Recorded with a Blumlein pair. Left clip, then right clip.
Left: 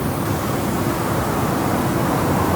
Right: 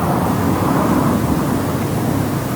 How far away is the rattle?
No rattle in this recording.